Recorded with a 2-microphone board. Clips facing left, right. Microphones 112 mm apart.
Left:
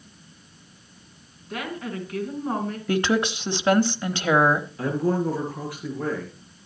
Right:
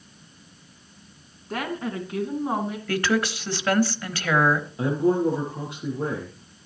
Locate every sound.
1.5 s a woman speaking: 40° right (ahead or behind), 3 m; by 2.8 s 10° right (ahead or behind), 3 m
2.9 s a woman speaking: 20° left (ahead or behind), 1.0 m
4.8 s a man speaking: 25° right (ahead or behind), 4.5 m